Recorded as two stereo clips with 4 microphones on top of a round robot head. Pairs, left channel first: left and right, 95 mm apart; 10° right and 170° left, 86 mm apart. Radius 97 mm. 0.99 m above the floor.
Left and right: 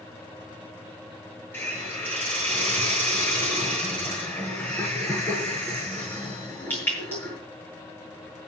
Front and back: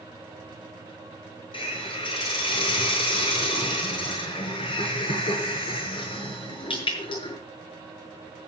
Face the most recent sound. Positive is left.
turn(degrees=15)